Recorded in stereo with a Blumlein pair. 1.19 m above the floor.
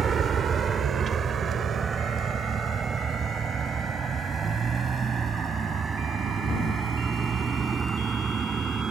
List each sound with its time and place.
0.0 s a vehicle: 20° right